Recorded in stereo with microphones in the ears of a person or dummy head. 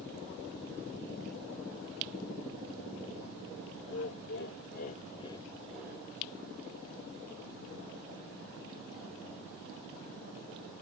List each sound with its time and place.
3.9 s laughter: 65° left (ahead or behind), 1.2 m; by 6.1 s 20° right (ahead or behind), 0.7 m